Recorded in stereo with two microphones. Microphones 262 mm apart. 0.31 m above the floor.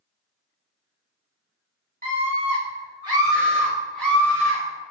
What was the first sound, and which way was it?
A scream, 35° right (ahead or behind).